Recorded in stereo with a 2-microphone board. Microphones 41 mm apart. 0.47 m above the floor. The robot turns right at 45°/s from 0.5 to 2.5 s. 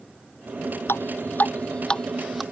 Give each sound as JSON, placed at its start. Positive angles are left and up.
{"t": 0.9, "sound": "dripping", "side_deg": 70}